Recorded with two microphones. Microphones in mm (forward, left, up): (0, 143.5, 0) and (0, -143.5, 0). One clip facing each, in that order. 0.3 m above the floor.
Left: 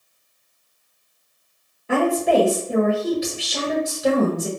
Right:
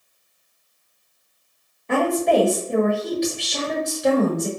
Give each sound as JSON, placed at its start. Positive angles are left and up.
{"t": 1.9, "sound": "a woman speaking", "side_deg": 5, "distance_m": 1.1}